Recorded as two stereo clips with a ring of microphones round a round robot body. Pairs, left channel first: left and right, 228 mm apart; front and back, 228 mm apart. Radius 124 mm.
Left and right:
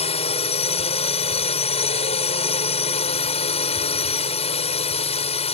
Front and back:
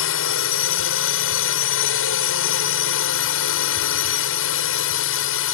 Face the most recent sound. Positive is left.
turn(degrees=25)